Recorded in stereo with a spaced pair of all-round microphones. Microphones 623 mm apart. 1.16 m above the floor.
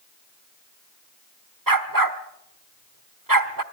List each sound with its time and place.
1.7 s a dog barking: 35° right (ahead or behind), 1.3 m